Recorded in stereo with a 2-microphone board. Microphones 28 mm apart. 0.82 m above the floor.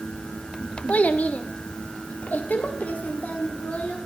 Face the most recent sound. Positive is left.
turn(degrees=65)  # may be behind; listen again after turning